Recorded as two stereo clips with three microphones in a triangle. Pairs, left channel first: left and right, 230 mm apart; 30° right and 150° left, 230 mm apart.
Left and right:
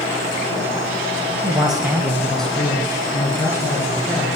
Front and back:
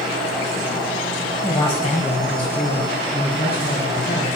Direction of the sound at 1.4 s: 100° right.